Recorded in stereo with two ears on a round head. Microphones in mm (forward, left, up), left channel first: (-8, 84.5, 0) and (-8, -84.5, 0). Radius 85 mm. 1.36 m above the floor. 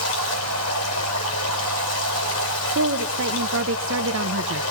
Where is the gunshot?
I don't hear a gunshot.